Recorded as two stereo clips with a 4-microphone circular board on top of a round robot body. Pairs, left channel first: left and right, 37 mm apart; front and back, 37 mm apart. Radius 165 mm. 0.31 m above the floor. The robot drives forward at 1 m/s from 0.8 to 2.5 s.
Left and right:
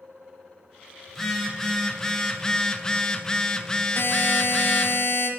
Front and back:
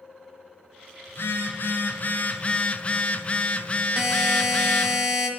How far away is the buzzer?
About 1.3 m.